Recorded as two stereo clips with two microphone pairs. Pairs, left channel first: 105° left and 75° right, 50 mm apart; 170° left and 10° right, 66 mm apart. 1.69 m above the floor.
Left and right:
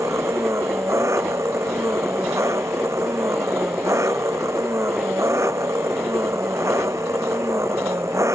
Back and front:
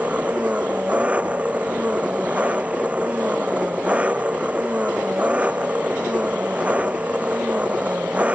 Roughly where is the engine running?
Right.